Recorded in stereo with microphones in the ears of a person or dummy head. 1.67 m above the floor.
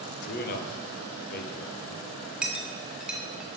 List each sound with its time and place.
0.2 s a man speaking: 50° left (ahead or behind), 1.0 m
2.4 s a clink: 5° right (ahead or behind), 0.7 m